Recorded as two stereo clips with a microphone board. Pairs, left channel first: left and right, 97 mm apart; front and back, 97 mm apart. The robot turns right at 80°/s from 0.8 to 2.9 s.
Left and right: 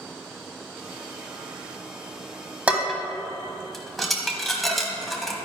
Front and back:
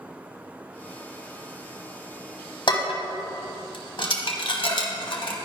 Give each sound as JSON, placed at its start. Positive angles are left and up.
{"t": 2.7, "sound": "dishes clattering", "azimuth_deg": -15, "distance_m": 1.2}